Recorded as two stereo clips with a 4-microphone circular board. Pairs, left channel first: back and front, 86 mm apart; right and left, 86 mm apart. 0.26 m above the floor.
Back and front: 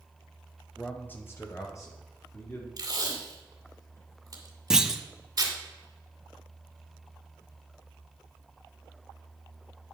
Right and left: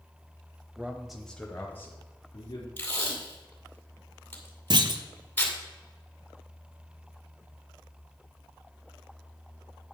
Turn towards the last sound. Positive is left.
turn(degrees=85)